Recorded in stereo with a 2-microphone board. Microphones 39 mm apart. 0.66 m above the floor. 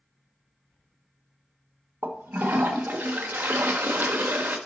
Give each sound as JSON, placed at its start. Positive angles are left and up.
{"t": 2.0, "sound": "a toilet flushing", "side_deg": -75, "distance_m": 1.0}